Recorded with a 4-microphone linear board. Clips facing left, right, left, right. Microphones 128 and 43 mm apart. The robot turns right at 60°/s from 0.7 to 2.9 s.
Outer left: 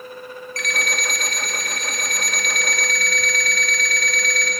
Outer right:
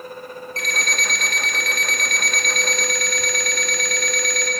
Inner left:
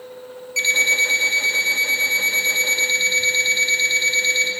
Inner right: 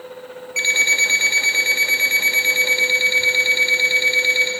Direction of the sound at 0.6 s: 150° right.